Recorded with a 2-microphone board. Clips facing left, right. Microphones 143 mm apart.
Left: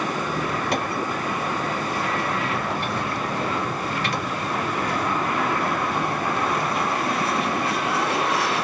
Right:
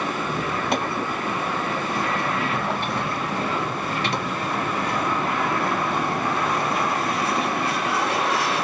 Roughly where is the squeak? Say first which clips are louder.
Even; right.